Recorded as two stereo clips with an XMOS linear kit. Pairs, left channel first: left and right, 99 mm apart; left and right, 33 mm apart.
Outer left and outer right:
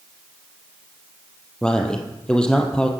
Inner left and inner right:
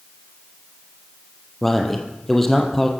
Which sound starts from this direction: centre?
A man speaking, at 1.6 s.